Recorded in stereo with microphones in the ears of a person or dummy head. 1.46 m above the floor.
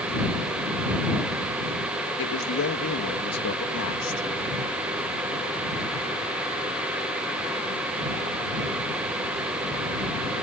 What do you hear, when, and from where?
2.2 s a man speaking: 70° left (ahead or behind); by 4.3 s 80° left